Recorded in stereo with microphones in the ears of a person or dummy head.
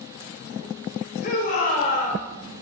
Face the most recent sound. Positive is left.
turn(degrees=40)  # may be behind; listen again after turning